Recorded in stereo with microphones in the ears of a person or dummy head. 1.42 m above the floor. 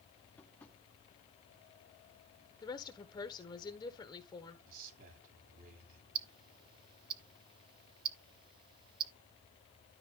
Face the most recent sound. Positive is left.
turn(degrees=-25)  # may be behind; listen again after turning